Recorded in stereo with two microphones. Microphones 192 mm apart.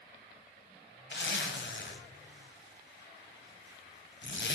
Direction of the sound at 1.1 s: 75° left (ahead or behind).